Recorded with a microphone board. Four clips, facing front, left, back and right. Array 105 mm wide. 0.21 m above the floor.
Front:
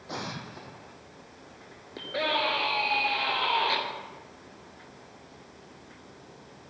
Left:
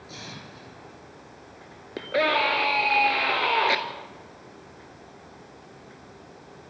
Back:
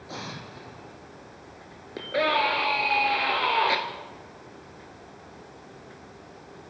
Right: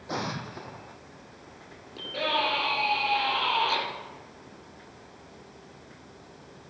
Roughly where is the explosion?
Right.